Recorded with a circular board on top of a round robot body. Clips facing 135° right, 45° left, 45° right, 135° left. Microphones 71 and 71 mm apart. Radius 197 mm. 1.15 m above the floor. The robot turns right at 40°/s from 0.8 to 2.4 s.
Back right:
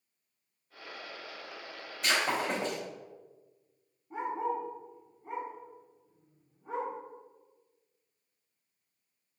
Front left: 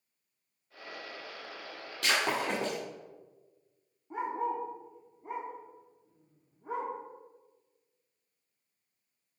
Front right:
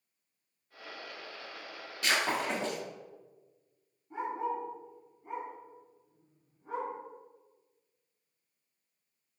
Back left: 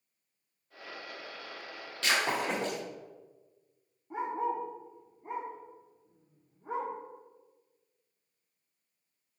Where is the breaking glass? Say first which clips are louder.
Even, back left 1 dB; 30° left, 2.5 m; by 2.8 s 50° left, 2.5 m.